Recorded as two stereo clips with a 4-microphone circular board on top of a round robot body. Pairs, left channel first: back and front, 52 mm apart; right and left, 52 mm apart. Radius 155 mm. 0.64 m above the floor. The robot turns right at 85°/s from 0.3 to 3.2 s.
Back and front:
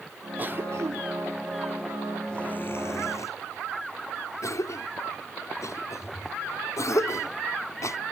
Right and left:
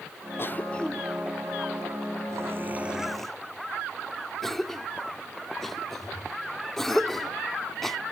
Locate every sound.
0.4 s a cough: 55° right; by 8.0 s 175° right